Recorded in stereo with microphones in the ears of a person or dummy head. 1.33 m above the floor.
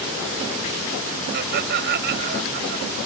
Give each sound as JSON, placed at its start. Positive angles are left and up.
{"t": 1.3, "sound": "laughter", "side_deg": -60}